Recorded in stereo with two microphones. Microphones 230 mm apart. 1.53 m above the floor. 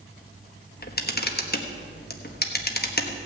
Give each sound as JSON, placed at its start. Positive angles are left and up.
{"t": 0.8, "sound": "a camera shutter", "side_deg": 45, "distance_m": 1.1}